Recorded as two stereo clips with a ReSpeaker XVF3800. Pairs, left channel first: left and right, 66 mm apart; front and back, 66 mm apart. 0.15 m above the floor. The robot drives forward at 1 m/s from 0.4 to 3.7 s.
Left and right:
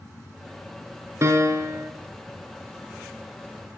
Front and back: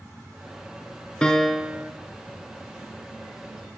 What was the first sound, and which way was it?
A piano, 70° right.